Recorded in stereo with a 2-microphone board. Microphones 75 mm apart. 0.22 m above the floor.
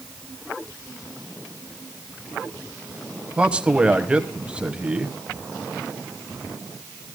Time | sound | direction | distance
3.4 | a man speaking | 15° right (ahead or behind) | 1.1 m